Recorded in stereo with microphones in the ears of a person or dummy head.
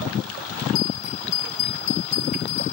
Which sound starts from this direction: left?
A bell, at 0.8 s.